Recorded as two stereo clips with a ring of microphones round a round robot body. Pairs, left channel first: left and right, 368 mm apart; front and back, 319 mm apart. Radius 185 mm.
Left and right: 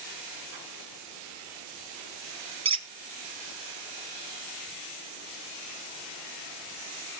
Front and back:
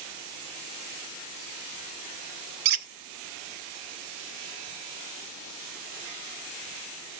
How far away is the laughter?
I don't hear laughter.